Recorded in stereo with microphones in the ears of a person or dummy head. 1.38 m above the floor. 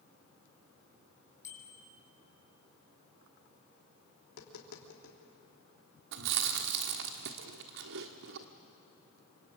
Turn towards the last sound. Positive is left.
turn(degrees=-60)  # may be behind; listen again after turning